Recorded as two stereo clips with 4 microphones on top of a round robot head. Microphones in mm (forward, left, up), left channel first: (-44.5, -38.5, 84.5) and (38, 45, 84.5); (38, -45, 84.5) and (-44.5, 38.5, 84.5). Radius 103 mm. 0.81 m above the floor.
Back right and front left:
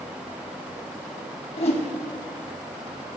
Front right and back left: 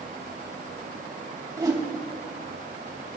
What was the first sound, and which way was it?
A whoosh, 165° right.